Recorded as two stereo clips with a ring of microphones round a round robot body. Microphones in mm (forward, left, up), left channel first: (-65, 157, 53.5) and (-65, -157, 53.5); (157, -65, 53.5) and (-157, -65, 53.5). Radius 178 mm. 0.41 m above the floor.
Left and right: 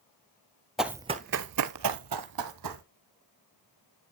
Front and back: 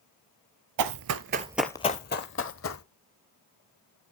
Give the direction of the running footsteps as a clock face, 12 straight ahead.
6 o'clock.